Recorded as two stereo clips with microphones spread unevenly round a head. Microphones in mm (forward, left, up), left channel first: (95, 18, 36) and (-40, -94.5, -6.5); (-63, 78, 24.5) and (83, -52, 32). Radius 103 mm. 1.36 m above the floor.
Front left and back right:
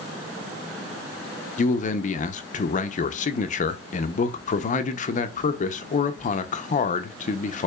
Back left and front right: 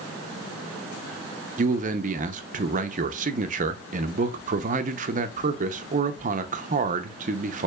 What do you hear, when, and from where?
1.6 s a man speaking: 5° left, 0.6 m